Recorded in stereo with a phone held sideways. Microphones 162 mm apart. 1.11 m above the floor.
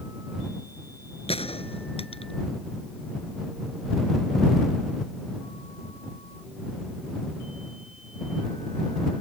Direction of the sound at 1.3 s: 35° left (ahead or behind).